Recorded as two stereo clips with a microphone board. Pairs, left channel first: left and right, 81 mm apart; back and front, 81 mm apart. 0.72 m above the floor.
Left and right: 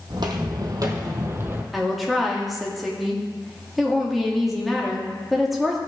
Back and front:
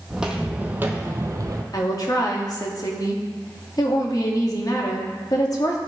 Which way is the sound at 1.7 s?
Straight behind.